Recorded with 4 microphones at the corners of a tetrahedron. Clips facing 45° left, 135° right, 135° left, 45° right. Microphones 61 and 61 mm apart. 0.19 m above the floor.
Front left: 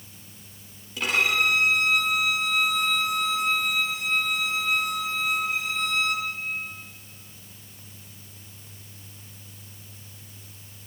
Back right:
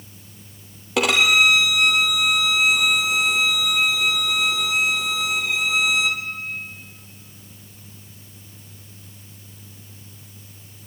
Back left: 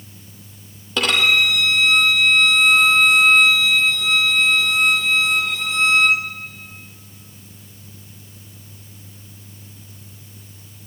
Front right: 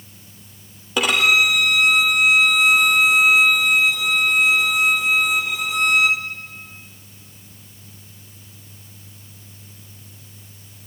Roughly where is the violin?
Behind right.